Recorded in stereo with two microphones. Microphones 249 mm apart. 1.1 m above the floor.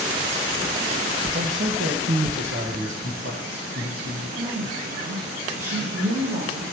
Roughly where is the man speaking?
Right.